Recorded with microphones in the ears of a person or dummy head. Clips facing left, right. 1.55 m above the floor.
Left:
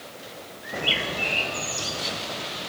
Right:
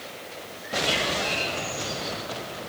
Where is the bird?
35° left (ahead or behind), 5.5 m.